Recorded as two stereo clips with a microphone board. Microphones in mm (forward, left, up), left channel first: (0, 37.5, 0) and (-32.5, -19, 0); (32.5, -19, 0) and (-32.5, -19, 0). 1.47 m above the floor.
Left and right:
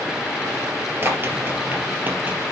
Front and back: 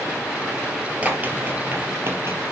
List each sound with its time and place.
1.0 s running footsteps: 130° right, 1.7 m; by 2.4 s 165° right, 2 m